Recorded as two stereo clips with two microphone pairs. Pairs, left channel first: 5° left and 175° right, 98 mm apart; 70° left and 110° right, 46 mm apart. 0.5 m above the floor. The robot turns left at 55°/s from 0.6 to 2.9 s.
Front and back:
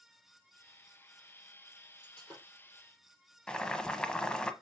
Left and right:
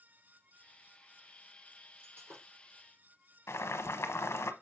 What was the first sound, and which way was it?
Breaking glass, 65° right.